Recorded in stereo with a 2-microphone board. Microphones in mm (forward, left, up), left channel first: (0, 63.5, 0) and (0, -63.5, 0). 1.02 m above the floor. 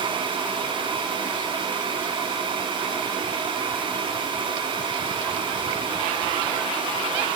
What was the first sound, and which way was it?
Only background noise.